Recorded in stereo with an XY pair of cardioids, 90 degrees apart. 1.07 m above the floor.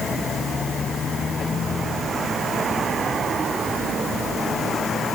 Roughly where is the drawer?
I don't hear a drawer.